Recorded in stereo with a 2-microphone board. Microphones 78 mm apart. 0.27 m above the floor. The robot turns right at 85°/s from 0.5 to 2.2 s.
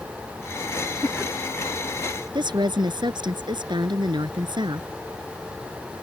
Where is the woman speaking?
75° right (ahead or behind).